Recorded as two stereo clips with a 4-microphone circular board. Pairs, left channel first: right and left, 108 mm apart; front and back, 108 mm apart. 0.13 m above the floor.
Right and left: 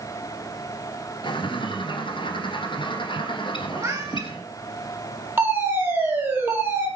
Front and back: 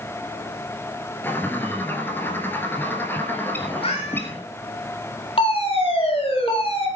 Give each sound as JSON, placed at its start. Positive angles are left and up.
{"t": 1.2, "sound": "a bird", "azimuth_deg": -65, "distance_m": 2.5}
{"t": 3.7, "sound": "a cat meowing", "azimuth_deg": 30, "distance_m": 6.5}
{"t": 5.4, "sound": "a fire alarm", "azimuth_deg": 25, "distance_m": 6.5}